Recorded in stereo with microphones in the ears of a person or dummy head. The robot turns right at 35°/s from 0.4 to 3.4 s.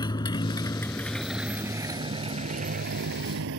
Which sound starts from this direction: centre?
A motorcycle, at 0.0 s.